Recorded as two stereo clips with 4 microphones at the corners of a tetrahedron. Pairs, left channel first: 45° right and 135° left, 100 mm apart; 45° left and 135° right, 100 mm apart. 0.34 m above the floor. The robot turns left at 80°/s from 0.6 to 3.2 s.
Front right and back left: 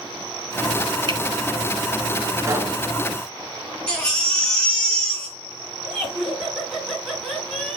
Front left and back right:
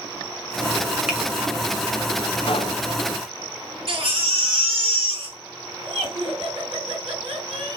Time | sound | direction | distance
1.1 | a finger snap | 140° left | 1.9 m
2.4 | a pop | 75° left | 0.9 m
3.9 | a baby crying | 125° right | 2.5 m
5.8 | laughter | 135° right | 4 m